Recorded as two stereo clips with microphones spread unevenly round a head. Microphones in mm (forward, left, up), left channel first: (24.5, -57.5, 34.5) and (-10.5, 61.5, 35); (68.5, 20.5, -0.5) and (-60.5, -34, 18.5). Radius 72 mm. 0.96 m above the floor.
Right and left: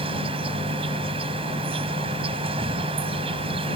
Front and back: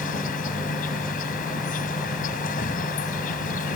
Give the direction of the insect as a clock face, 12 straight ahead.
10 o'clock.